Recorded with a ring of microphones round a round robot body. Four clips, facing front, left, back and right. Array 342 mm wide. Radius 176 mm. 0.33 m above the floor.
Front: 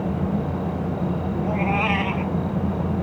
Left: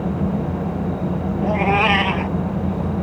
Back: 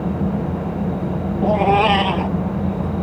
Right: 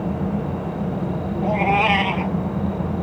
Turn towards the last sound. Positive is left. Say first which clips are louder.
# even, back 10 dB
turn(degrees=160)